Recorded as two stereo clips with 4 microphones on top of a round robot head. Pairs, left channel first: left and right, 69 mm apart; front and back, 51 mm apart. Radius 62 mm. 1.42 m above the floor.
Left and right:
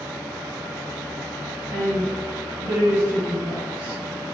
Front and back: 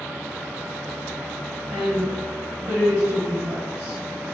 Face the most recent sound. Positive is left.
turn(degrees=-160)